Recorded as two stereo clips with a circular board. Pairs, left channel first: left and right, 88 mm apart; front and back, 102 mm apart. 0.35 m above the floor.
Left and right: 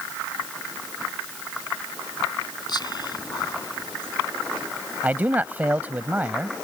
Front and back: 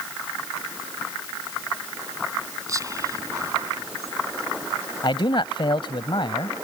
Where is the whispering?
125° left.